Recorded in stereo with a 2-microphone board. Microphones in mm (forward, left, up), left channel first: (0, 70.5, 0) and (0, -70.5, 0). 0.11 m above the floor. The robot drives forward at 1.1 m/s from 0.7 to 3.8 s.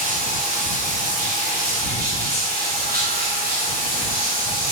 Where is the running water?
60° right (ahead or behind), 4 m; by 4.7 s 65° right (ahead or behind), 4 m.